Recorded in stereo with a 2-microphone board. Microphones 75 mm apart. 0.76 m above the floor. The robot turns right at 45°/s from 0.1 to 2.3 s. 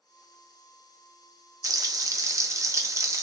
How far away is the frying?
About 0.5 m.